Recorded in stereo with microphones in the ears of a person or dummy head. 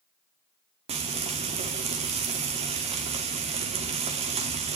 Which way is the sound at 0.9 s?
35° right (ahead or behind).